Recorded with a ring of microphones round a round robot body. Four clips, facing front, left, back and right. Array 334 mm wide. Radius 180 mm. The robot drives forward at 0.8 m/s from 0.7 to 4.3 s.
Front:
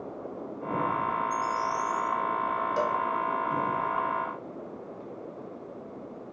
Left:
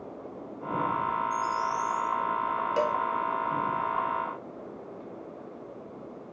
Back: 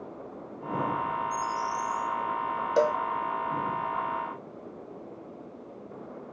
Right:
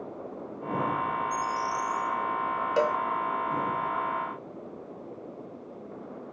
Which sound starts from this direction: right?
A bird, at 1.3 s.